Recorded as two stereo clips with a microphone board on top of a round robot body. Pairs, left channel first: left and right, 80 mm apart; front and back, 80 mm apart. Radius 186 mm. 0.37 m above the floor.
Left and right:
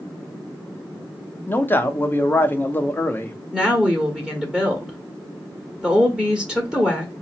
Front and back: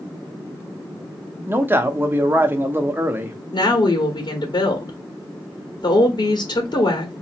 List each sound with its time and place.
1.5 s a man speaking: 135° left, 1.0 m
3.5 s a woman speaking: 5° right, 1.7 m